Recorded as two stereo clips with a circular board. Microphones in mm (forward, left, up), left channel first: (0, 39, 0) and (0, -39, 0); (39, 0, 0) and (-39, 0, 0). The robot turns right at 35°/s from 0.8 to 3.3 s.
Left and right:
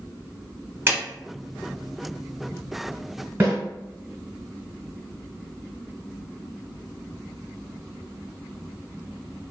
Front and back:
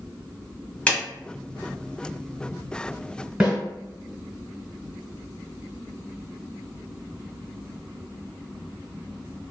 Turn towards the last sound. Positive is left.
turn(degrees=-110)